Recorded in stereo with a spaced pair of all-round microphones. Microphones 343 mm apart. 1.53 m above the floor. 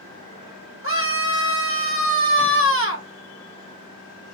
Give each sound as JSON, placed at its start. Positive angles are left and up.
{"t": 0.8, "sound": "a scream", "side_deg": 40, "distance_m": 1.1}